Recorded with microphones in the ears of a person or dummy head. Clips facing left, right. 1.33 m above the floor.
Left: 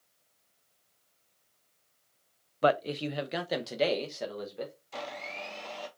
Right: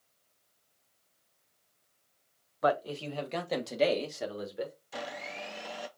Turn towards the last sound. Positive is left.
turn(degrees=-5)  # may be behind; listen again after turning